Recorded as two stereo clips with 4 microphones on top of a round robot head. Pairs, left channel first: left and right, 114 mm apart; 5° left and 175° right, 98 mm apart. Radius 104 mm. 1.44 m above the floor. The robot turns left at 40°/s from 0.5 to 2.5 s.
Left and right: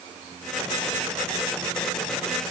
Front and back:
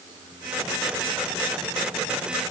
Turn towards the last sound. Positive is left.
No sound to turn to.